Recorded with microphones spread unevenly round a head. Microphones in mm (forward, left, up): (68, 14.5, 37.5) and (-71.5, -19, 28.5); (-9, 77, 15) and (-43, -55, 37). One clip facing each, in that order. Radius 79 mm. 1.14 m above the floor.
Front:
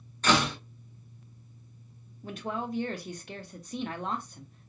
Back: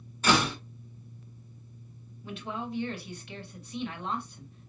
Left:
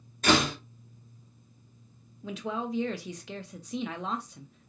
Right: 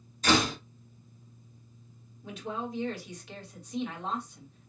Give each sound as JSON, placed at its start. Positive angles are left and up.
{"t": 0.2, "sound": "a door slam", "azimuth_deg": 110, "distance_m": 1.9}
{"t": 2.2, "sound": "a man speaking", "azimuth_deg": 65, "distance_m": 1.1}